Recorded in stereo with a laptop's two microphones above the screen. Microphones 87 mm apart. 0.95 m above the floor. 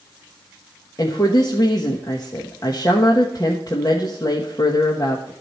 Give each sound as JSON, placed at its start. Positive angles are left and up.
{"t": 1.0, "sound": "a woman speaking", "side_deg": 45, "distance_m": 1.3}